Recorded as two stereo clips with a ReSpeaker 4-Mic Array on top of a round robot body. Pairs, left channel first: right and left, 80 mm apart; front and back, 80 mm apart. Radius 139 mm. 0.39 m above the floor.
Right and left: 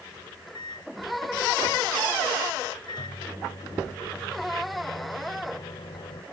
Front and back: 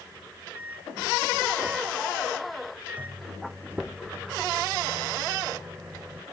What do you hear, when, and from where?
0.2 s a microwave: 110° right